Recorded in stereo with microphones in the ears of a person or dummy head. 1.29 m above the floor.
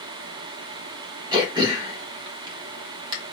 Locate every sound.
1.3 s throat clearing: 30° right (ahead or behind), 1.0 m